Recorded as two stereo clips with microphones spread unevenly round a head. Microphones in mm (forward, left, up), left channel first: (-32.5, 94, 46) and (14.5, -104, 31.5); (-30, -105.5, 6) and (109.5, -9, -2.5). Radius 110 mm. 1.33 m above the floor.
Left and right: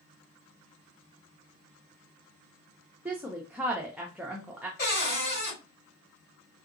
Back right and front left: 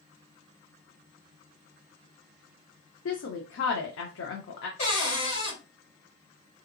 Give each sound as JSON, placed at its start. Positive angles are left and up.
{"t": 3.0, "sound": "a woman speaking", "azimuth_deg": -160, "distance_m": 0.5}
{"t": 4.8, "sound": "a cupboard door", "azimuth_deg": 150, "distance_m": 3.0}